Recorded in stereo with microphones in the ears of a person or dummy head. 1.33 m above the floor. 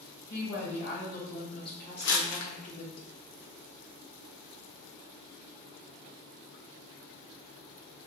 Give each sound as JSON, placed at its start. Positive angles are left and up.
{"t": 0.3, "sound": "a woman speaking", "side_deg": -10, "distance_m": 1.7}
{"t": 2.0, "sound": "crumpling", "side_deg": 65, "distance_m": 0.5}